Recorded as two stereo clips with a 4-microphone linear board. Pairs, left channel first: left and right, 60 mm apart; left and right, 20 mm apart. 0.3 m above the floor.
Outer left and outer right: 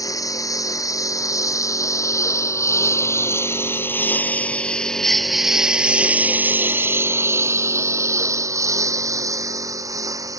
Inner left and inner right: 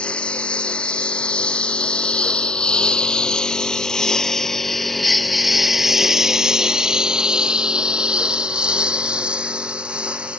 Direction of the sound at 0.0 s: 70° left (ahead or behind).